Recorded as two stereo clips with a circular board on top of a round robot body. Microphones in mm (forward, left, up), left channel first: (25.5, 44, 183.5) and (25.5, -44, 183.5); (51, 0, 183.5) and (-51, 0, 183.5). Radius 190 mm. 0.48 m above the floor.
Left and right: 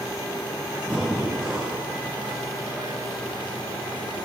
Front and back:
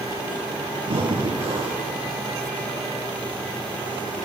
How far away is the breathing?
About 8 m.